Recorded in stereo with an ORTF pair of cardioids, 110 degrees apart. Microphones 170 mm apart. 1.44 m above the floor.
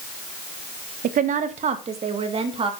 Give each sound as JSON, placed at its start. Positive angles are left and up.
{"t": 1.0, "sound": "a woman speaking", "azimuth_deg": -55, "distance_m": 1.4}